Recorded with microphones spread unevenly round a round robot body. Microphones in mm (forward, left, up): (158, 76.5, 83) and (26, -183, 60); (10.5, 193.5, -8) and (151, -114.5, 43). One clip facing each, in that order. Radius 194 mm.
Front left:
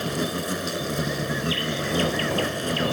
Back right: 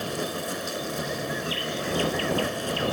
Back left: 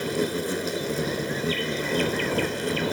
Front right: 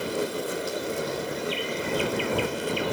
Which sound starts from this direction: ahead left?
An insect, at 0.0 s.